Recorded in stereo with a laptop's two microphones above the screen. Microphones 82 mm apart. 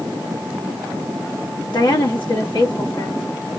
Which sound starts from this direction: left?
A woman speaking, at 1.7 s.